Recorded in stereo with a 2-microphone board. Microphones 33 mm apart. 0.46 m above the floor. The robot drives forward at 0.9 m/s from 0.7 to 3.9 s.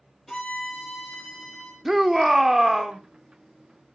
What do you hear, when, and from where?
0.3 s a violin: 5° left (ahead or behind), 4 m
1.9 s a shout: 10° right (ahead or behind), 0.8 m; by 3.0 s 5° right (ahead or behind), 1.1 m